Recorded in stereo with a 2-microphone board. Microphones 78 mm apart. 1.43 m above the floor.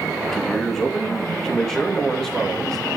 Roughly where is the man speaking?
Centre.